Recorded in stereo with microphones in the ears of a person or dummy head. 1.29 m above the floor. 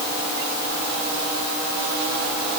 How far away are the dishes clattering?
I don't hear dishes clattering.